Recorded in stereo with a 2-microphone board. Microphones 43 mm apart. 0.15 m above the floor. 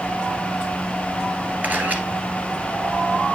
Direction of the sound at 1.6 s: 35° right (ahead or behind).